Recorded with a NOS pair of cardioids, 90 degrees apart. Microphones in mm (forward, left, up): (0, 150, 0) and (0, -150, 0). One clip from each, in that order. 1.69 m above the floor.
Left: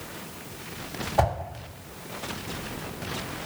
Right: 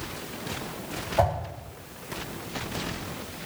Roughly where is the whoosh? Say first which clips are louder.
Even; ahead.